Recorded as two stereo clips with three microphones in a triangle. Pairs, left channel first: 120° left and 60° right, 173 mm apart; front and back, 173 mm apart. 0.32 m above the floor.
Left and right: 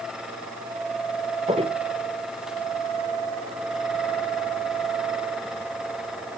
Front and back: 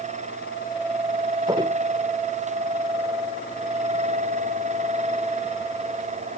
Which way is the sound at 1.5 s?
115° right.